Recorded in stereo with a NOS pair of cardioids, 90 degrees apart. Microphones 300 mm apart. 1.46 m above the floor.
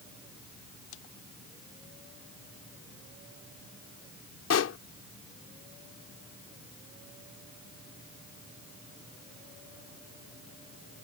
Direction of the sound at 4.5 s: 55° left.